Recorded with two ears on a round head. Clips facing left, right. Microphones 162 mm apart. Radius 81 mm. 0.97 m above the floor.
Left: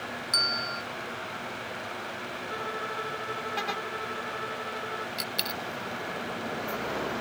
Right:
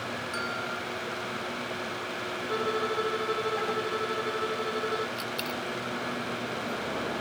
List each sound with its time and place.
0.3 s a bell: 45° left (ahead or behind)
2.5 s a violin: 45° right (ahead or behind)
5.2 s a dropped coin: 15° left (ahead or behind)